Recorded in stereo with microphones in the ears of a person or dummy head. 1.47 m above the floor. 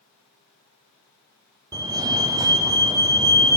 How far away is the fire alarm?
About 1.0 m.